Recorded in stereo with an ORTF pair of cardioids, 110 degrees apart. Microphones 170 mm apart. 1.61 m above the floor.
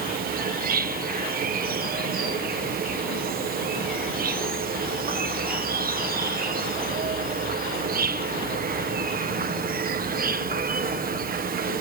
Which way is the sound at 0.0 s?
60° right.